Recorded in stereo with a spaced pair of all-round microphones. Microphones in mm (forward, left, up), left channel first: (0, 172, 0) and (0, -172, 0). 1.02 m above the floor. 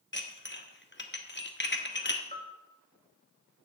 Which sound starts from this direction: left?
Dishes clattering, at 0.1 s.